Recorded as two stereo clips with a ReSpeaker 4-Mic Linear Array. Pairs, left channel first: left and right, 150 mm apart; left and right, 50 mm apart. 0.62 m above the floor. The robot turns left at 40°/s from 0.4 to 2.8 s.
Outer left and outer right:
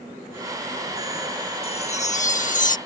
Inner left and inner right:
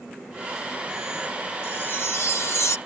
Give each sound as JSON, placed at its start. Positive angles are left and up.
{"t": 1.6, "sound": "a chime", "azimuth_deg": 130}